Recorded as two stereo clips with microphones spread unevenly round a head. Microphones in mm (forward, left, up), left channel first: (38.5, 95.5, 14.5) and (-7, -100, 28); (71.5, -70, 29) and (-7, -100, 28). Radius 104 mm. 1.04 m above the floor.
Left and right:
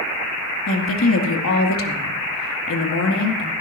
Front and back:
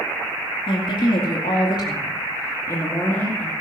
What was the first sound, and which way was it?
A woman speaking, 60° left.